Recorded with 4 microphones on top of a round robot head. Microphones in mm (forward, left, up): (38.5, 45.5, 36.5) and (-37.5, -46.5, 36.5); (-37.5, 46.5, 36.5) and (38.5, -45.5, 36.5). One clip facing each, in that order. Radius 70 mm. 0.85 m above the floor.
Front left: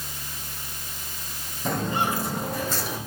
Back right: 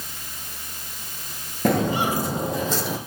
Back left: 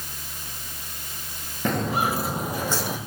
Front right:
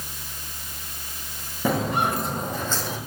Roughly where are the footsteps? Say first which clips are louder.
Back right 5 dB, front right 1 dB; behind right.